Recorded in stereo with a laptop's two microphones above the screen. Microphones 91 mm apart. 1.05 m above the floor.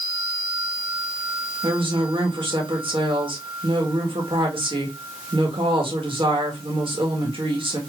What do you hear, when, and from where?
1.6 s a woman speaking: 75° right (ahead or behind), 1.4 m